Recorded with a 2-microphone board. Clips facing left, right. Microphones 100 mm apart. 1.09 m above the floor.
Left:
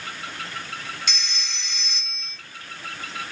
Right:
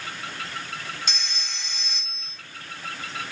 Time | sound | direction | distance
1.1 | a phone ringing | 35° right (ahead or behind) | 2.5 m